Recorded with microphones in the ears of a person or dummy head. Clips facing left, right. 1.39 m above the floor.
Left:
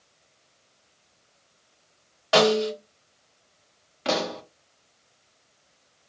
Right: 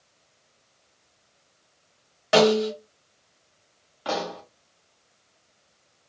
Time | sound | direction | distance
2.3 | a snare drum | 20° right (ahead or behind) | 1.5 m
4.0 | a pop | 35° left (ahead or behind) | 0.6 m